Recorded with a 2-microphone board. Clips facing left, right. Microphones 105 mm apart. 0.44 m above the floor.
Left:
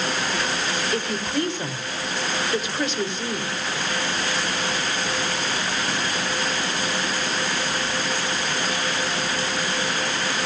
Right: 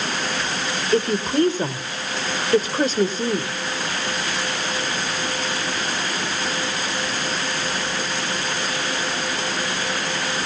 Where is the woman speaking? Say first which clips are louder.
Right 10 dB; 40° right (ahead or behind), 1.5 m.